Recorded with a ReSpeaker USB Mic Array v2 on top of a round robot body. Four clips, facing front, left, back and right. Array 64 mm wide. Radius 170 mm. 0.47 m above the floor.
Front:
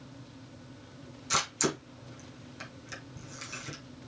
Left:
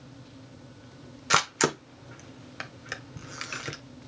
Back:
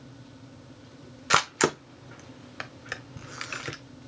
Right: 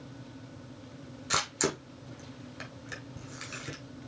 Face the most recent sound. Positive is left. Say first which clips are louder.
# left 6 dB, back 8 dB
turn(degrees=150)